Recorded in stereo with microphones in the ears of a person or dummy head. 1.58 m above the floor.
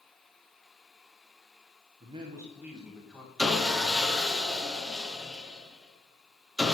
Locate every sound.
2.0 s a man speaking: 35° right (ahead or behind), 1.6 m; by 3.3 s 5° left (ahead or behind), 2.5 m
3.4 s sawing: centre (ahead or behind), 1.2 m